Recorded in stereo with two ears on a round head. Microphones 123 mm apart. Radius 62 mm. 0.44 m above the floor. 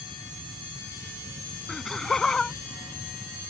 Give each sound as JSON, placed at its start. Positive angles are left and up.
{"t": 1.7, "sound": "laughter", "side_deg": 5}